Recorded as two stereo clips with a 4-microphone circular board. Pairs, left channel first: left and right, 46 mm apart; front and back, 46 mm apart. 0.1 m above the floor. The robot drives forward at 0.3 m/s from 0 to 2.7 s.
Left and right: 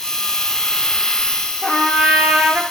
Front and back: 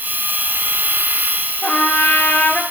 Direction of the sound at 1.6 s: 30° right.